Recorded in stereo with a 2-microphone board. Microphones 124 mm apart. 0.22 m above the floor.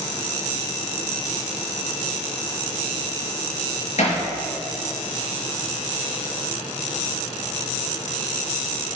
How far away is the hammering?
About 3.5 m.